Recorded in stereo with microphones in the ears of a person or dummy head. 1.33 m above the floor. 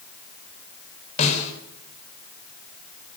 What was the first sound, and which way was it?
A snare drum, 40° left (ahead or behind).